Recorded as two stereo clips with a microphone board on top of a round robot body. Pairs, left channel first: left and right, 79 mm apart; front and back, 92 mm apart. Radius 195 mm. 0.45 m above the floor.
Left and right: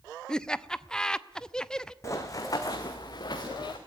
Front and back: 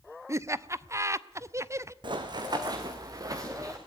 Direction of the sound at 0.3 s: 160° left.